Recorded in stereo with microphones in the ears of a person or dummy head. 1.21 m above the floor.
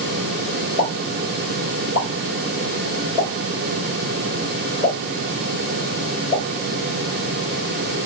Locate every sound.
0.8 s a pop: 35° right (ahead or behind), 3 m